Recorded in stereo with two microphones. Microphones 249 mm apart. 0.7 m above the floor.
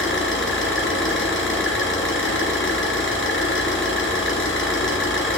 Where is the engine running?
55° left (ahead or behind), 3 m.